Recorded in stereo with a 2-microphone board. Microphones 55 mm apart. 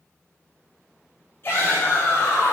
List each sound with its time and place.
1.4 s a shout: 50° left (ahead or behind), 4.5 m; by 2.5 s 55° left (ahead or behind), 3 m